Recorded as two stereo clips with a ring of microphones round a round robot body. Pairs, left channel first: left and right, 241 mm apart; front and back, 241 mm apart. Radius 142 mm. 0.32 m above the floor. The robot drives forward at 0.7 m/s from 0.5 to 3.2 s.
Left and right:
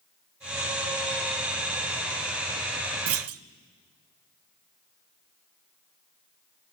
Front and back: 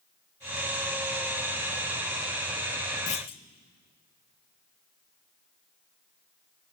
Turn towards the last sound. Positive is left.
turn(degrees=-70)